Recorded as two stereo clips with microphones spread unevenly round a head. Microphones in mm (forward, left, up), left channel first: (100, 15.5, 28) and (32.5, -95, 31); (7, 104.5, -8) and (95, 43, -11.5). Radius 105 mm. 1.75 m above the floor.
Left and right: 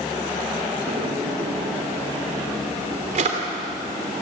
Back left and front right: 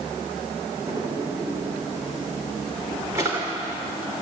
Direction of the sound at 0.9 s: 105° right.